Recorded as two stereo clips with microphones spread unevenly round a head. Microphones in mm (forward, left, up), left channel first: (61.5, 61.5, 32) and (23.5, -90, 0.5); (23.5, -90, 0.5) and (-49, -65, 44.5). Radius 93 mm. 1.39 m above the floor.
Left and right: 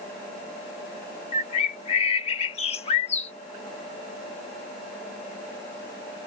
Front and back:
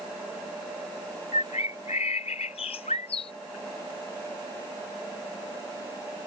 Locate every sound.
1.3 s a bird: 40° left